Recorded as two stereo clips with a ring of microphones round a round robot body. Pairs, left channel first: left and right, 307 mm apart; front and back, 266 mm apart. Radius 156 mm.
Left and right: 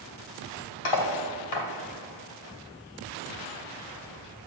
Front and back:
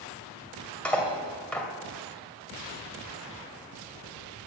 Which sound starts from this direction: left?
Cutlery clinking, at 0.8 s.